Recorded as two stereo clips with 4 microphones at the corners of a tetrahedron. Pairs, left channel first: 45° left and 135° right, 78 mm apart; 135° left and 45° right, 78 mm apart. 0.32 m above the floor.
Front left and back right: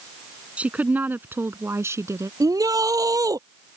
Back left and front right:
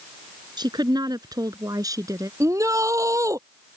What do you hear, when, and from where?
0.6 s a woman speaking: 65° right; by 2.3 s 85° right
2.4 s a shout: 95° right